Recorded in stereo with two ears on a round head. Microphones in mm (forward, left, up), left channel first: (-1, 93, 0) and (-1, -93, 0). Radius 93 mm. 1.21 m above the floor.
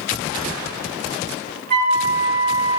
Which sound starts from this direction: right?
A flute, at 1.7 s.